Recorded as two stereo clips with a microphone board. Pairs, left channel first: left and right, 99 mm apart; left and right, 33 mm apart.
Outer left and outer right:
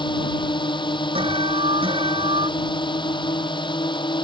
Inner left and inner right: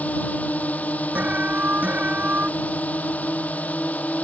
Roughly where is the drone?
Left.